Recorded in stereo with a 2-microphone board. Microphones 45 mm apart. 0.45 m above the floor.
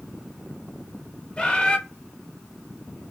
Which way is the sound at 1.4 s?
20° left (ahead or behind).